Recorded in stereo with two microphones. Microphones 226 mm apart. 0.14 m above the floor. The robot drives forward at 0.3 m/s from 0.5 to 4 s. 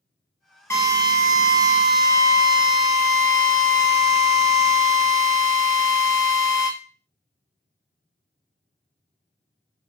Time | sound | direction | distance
0.7 | a drill | 10° left (ahead or behind) | 1.1 m